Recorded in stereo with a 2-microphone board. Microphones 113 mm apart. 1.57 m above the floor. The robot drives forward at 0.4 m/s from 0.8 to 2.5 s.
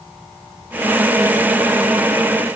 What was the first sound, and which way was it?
Only background noise.